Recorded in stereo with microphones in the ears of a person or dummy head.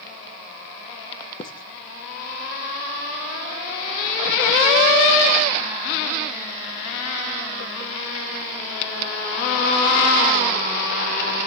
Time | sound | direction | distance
1.4 | writing | 30° left (ahead or behind) | 0.9 m